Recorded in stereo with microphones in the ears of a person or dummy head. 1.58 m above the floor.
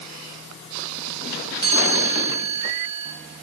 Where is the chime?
30° right (ahead or behind), 8.5 m.